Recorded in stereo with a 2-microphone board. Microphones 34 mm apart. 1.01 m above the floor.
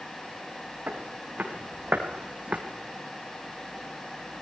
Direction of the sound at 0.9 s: 50° right (ahead or behind).